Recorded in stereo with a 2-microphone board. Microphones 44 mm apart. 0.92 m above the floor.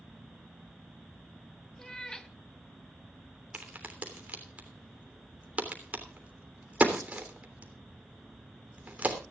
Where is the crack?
35° right (ahead or behind), 3 m.